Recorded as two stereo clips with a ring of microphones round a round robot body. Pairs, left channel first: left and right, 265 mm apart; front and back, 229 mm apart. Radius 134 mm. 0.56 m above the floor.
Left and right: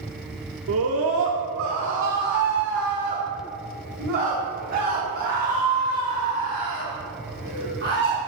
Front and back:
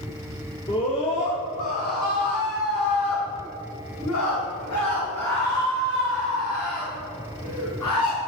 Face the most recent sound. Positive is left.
turn(degrees=-25)